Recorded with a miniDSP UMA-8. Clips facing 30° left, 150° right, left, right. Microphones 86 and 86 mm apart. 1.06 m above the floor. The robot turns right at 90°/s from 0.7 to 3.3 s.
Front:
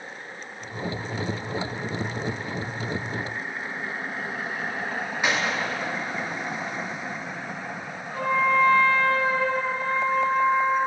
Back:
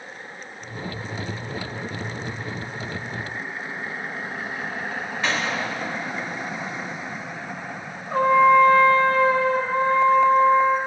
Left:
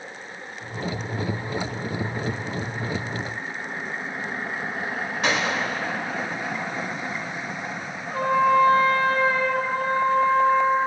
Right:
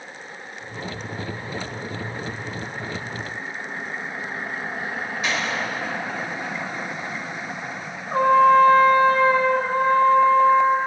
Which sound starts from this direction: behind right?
A trumpet, at 8.1 s.